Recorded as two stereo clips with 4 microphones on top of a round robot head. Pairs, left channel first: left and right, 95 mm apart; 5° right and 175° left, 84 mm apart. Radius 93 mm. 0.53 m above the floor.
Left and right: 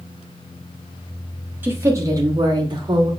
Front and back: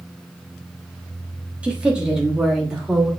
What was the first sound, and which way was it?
A woman speaking, 125° right.